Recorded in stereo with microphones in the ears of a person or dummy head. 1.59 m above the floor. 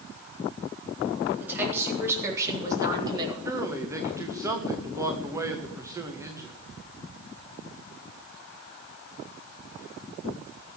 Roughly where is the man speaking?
Centre.